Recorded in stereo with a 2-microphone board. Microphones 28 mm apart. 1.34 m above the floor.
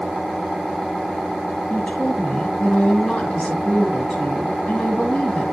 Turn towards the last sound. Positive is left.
turn(degrees=50)  # may be behind; listen again after turning